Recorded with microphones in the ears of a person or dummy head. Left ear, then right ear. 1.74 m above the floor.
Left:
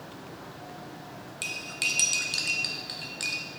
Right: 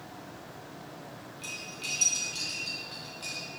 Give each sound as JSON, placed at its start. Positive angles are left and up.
{"t": 1.4, "sound": "cutlery clinking", "side_deg": 40, "distance_m": 1.0}